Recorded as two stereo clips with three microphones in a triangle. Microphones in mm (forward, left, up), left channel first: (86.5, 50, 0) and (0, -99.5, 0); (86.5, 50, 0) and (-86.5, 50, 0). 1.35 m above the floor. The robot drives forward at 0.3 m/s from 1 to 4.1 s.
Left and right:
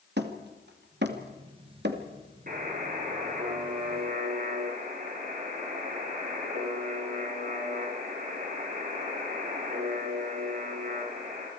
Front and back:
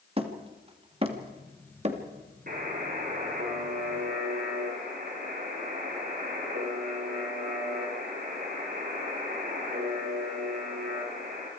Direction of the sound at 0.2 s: 125° right.